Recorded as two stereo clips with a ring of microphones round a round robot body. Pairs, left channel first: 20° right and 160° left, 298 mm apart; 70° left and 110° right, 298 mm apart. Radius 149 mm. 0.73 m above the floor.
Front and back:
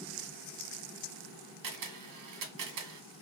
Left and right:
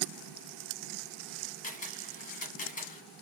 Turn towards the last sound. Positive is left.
turn(degrees=130)